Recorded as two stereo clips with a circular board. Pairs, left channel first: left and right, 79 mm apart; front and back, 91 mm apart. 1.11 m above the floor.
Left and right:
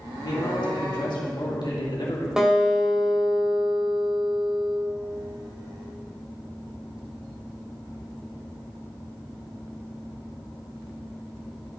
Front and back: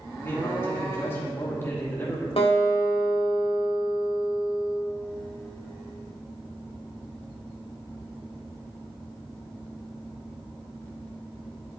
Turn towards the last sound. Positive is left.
turn(degrees=-10)